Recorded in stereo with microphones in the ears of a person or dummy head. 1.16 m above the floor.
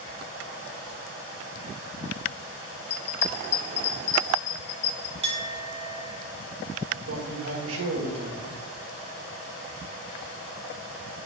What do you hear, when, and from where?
2.9 s a bell: 40° left (ahead or behind), 0.9 m
5.2 s a clink: 30° right (ahead or behind), 0.9 m
6.9 s a man speaking: 80° right, 1.5 m